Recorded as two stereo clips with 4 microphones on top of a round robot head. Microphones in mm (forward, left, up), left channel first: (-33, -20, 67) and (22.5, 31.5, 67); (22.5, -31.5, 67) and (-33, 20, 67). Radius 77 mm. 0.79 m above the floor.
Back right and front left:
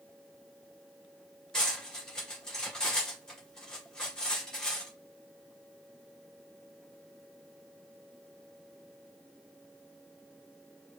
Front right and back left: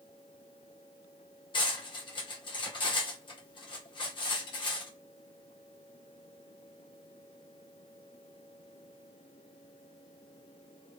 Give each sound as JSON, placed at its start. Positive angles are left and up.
{"t": 1.5, "sound": "cutlery clinking", "azimuth_deg": -55, "distance_m": 1.7}